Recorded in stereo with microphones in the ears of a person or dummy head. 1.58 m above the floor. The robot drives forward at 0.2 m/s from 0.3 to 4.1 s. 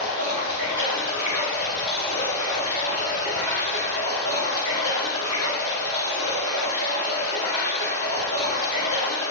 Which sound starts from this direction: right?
Running water, at 0.0 s.